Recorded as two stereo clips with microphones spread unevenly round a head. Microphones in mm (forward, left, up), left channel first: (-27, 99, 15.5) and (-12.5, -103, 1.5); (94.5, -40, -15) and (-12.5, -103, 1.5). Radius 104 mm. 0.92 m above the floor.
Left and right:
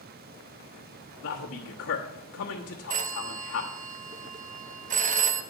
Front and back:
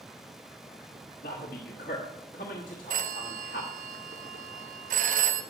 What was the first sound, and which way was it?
A man speaking, 65° left.